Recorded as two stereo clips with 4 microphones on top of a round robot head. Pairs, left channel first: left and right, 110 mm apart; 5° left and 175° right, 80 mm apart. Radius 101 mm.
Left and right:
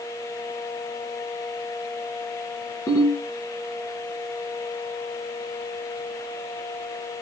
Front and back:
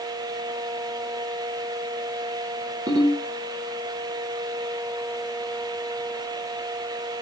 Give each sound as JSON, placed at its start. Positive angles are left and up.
{"t": 2.9, "sound": "a ringtone", "azimuth_deg": 160, "distance_m": 7.0}